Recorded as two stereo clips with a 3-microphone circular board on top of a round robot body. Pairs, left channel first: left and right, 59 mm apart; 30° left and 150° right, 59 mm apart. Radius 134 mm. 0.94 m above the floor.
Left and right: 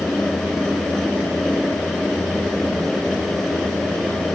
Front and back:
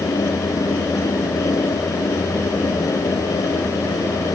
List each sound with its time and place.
Only background noise.